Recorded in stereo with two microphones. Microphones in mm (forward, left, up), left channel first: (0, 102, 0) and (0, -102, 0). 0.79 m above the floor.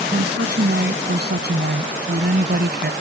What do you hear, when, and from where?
0.1 s a woman speaking: 55° right (ahead or behind)